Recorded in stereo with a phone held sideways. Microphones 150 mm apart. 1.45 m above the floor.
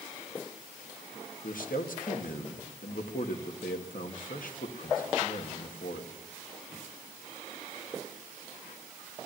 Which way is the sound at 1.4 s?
75° left (ahead or behind).